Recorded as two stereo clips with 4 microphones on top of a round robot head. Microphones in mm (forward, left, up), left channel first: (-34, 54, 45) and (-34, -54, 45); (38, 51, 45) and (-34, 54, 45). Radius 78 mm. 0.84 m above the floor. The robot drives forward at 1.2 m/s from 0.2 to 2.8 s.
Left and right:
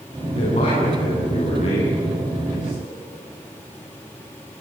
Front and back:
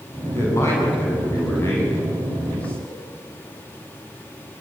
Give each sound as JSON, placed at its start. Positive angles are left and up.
{"t": 0.3, "sound": "a man speaking", "azimuth_deg": 45, "distance_m": 7.5}